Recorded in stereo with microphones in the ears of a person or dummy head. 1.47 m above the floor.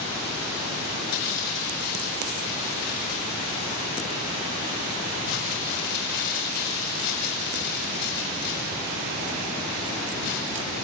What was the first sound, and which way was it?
Crumpling, 65° left (ahead or behind).